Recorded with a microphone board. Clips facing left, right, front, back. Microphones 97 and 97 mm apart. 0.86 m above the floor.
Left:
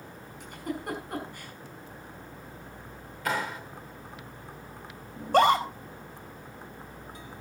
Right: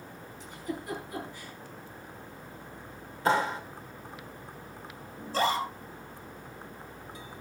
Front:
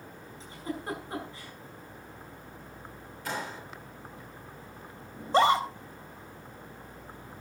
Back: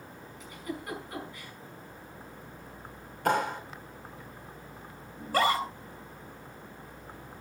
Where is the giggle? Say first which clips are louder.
Left 3 dB, front 2 dB; 60° left, 5.5 m.